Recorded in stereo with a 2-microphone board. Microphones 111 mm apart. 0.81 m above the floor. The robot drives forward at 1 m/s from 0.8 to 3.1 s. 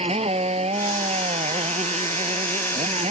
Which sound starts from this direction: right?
A motorcycle, at 0.0 s.